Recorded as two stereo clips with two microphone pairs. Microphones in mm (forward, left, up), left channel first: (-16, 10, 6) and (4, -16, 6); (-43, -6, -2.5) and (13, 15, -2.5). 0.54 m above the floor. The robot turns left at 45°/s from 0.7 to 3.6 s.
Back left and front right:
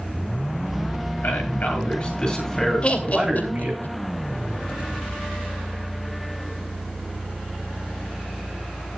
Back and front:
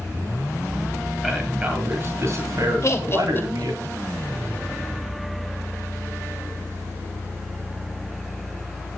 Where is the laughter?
175° left, 2.5 m; by 4.0 s 140° left, 2.5 m.